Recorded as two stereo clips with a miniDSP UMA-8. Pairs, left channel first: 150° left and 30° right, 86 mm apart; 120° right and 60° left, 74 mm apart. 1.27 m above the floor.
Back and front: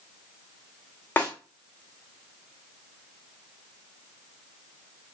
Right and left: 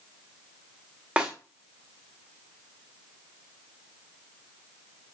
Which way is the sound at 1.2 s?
115° left.